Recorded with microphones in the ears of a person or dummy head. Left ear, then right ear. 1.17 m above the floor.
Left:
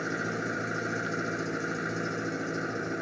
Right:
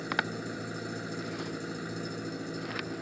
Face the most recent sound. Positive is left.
turn(degrees=25)  # may be behind; listen again after turning